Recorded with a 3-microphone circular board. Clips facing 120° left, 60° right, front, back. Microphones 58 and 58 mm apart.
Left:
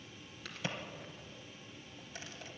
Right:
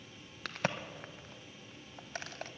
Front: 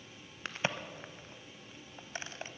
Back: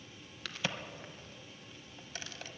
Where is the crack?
60° right, 0.8 m.